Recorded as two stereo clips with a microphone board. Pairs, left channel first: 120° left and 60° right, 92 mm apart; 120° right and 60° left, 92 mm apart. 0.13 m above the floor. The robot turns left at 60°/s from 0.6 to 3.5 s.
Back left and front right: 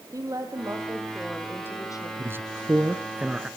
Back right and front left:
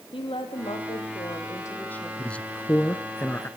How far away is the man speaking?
About 1.1 m.